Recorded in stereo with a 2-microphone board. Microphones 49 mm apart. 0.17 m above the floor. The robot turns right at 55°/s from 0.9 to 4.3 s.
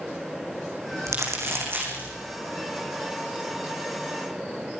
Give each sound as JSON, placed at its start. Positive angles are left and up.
{"t": 1.1, "sound": "crumpling", "side_deg": -80, "distance_m": 6.5}